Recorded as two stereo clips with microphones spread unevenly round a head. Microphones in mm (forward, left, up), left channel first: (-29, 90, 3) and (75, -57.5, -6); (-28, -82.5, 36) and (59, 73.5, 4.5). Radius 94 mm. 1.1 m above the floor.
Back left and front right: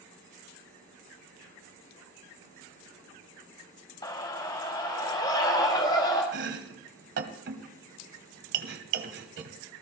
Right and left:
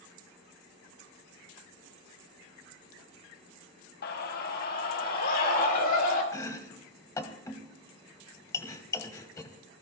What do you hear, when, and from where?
4.0 s a scream: 160° right, 1.3 m; by 6.2 s 165° right, 4.5 m
6.3 s chopping: 55° right, 1.4 m